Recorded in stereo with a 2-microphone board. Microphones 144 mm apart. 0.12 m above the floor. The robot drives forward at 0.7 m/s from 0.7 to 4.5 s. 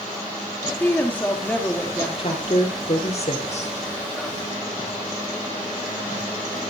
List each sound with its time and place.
0.8 s a woman speaking: 10° left (ahead or behind), 2.5 m
2.2 s a woman speaking: 40° left (ahead or behind), 4 m; by 3.8 s 50° left (ahead or behind), 3 m